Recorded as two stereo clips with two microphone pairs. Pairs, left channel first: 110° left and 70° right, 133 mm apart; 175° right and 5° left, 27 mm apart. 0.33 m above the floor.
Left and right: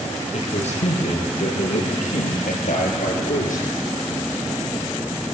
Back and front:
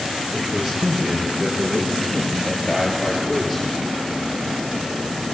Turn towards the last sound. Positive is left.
turn(degrees=95)